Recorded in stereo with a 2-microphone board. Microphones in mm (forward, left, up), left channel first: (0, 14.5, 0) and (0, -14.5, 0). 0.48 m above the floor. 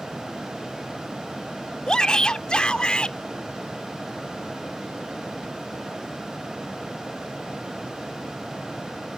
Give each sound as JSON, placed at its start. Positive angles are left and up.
{"t": 1.9, "sound": "a shout", "side_deg": 30}